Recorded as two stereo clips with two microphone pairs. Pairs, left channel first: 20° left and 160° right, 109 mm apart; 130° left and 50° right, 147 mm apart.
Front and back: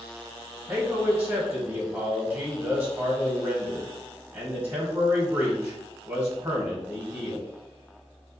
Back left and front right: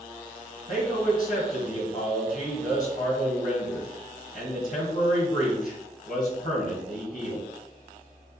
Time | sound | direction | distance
0.7 | a man speaking | 135° left | 2 m